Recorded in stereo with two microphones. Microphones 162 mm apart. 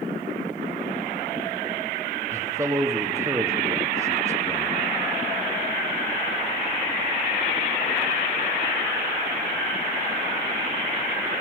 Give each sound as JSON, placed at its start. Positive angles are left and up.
{"t": 2.3, "sound": "a man speaking", "side_deg": -15, "distance_m": 0.9}